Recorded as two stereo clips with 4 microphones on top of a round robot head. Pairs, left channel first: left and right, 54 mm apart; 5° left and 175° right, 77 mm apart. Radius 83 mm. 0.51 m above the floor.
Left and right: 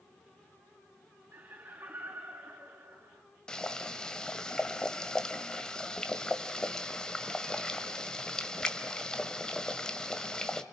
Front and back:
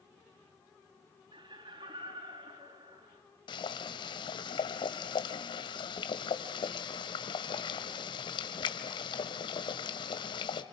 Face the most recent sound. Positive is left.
turn(degrees=15)